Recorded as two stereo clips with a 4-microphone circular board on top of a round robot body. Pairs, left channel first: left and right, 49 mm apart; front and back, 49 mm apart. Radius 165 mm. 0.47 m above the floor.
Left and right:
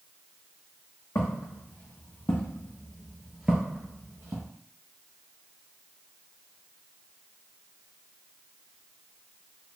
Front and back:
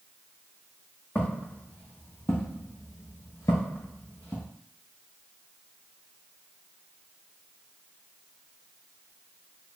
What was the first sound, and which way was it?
Footsteps, 60° left.